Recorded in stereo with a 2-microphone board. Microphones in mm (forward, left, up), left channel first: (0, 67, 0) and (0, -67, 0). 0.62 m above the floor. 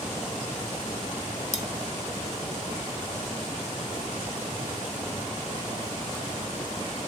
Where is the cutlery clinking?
60° left (ahead or behind), 1.2 m.